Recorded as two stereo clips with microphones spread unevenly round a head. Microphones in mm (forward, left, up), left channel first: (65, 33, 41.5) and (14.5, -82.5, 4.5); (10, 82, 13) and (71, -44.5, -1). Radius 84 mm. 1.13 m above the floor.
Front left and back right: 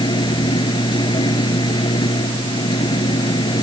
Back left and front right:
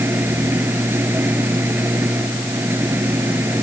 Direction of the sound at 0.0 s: 10° left.